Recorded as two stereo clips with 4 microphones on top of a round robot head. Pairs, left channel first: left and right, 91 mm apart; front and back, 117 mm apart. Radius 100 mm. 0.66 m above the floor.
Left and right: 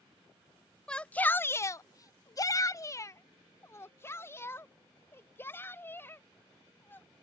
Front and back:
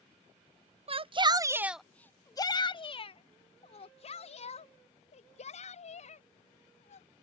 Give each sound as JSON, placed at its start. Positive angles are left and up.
{"t": 0.9, "sound": "a shout", "azimuth_deg": 170}